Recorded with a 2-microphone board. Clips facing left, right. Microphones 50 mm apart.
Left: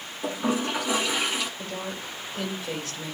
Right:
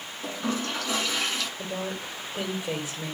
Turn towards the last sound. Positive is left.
turn(degrees=-15)  # may be behind; listen again after turning